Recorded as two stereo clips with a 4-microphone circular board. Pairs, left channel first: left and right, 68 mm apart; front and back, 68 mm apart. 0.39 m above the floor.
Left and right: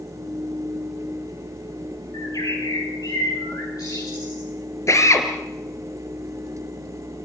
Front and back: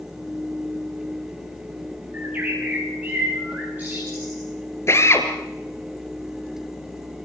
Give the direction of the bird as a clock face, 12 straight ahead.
8 o'clock.